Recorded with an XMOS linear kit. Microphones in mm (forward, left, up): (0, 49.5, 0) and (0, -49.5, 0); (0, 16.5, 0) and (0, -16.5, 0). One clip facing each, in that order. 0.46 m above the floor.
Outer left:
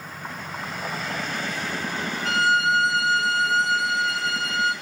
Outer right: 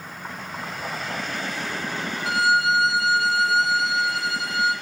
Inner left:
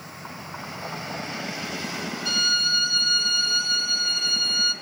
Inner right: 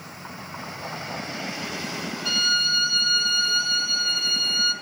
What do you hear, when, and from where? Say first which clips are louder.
2.2 s a violin: outer right 1 dB, inner right 1 dB; 5° right (ahead or behind), 0.7 m